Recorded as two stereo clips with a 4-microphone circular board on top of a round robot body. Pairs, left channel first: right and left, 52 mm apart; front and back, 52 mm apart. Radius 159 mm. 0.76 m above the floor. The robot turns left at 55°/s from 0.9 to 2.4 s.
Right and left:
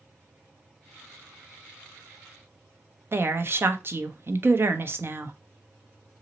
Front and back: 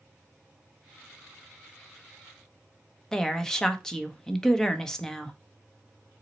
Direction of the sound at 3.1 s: 75° left.